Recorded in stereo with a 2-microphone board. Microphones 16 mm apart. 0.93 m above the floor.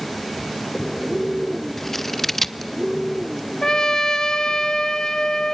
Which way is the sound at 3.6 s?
40° left (ahead or behind).